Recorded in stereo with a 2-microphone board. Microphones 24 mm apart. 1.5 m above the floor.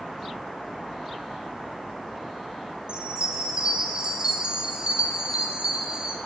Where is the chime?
40° right (ahead or behind), 0.6 m.